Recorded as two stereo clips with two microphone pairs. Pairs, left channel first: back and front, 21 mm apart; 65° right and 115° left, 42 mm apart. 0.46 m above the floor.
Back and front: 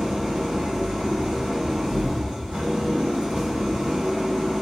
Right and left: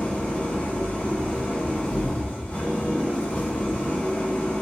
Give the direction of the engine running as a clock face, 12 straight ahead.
12 o'clock.